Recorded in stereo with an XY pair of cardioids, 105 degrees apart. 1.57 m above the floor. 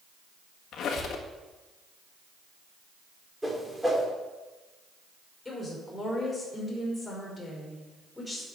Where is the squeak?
70° left, 1.7 m.